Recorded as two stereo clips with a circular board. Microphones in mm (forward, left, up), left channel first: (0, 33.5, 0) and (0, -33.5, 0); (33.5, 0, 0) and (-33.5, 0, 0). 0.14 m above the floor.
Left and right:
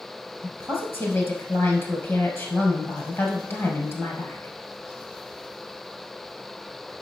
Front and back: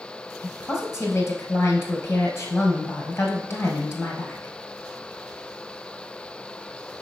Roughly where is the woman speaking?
Ahead left.